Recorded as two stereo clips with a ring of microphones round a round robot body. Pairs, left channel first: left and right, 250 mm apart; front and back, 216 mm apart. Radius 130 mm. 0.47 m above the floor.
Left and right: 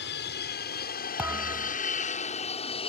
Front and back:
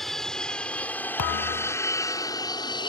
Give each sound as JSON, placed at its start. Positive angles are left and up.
{"t": 0.0, "sound": "an aircraft", "azimuth_deg": 90}
{"t": 1.2, "sound": "a thud", "azimuth_deg": -5}